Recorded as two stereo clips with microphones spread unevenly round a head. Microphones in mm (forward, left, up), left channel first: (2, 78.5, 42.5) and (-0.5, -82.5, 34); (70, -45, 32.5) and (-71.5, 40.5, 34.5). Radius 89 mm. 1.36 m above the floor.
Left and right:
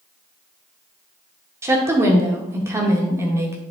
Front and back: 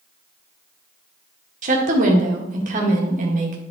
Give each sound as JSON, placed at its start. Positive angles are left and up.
{"t": 1.6, "sound": "a woman speaking", "azimuth_deg": -165, "distance_m": 1.7}